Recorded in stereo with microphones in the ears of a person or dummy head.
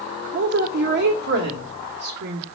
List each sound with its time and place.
0.3 s a woman speaking: 60° right (ahead or behind), 0.9 m